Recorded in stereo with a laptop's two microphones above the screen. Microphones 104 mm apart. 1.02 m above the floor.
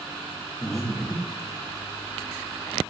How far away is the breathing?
About 2.5 m.